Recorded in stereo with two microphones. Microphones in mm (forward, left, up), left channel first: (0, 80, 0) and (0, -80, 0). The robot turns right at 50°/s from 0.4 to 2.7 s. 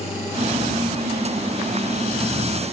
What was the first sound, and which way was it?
Only background noise.